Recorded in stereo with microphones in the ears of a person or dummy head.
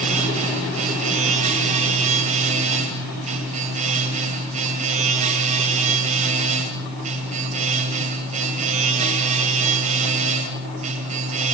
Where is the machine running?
35° right (ahead or behind), 2.5 m.